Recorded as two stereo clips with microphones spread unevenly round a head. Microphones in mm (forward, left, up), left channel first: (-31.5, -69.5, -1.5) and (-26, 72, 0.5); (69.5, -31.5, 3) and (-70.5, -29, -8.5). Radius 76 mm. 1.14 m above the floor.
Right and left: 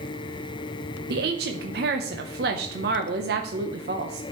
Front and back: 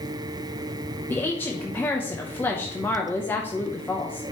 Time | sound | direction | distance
1.1 | a woman speaking | 80° left | 0.8 m